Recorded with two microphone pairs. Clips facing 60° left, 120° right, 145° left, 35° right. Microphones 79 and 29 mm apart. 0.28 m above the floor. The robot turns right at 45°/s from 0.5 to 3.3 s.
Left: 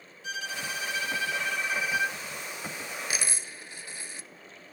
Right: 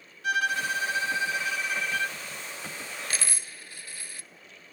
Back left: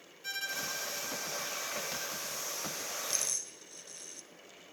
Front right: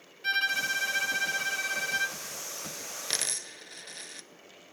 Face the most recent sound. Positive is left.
turn(degrees=-5)